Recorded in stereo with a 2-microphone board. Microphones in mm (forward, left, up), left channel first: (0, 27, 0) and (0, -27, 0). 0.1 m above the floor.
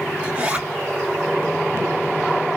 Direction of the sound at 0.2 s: 25° right (ahead or behind).